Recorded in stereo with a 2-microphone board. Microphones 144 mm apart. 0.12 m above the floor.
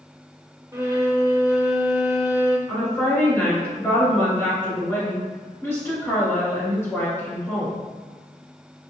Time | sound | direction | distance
0.7 | a violin | 20° right (ahead or behind) | 0.6 m
2.7 | a woman speaking | 20° left (ahead or behind) | 1.5 m